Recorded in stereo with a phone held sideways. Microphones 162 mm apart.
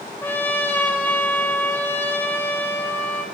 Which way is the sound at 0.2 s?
10° left (ahead or behind).